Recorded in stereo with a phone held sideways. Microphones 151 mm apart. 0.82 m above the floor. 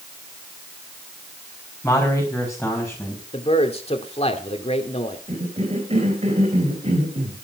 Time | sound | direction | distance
1.8 | a man speaking | 15° left (ahead or behind) | 4.5 m
3.3 | a man speaking | 45° left (ahead or behind) | 2.5 m
5.3 | a cough | 45° right (ahead or behind) | 3.5 m